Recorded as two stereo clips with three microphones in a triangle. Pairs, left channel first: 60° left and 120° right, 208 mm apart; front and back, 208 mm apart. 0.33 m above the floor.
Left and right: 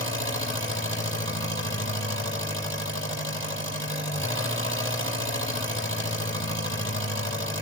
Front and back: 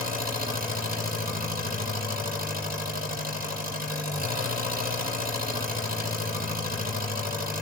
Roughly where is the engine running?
Behind right.